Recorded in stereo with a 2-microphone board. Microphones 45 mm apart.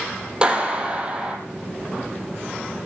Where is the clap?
20° right (ahead or behind), 4 m.